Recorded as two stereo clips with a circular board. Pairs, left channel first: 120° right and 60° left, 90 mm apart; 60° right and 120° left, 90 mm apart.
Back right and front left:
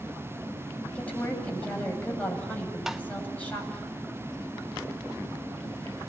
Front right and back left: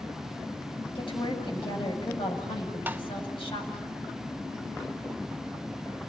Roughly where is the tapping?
Behind left.